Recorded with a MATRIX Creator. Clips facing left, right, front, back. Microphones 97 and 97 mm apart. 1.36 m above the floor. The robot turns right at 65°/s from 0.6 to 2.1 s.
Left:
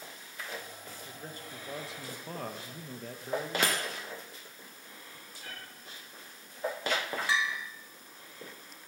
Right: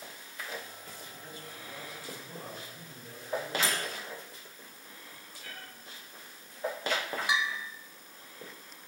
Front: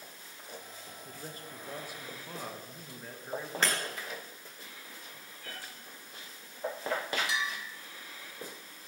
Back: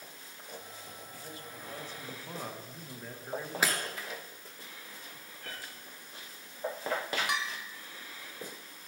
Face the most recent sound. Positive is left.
turn(degrees=-160)